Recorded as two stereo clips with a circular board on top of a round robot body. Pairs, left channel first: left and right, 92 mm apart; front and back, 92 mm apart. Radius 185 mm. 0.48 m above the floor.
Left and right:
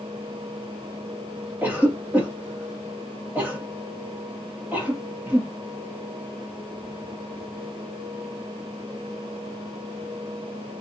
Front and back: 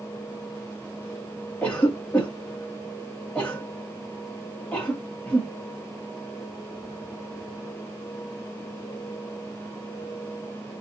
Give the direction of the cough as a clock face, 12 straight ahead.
2 o'clock.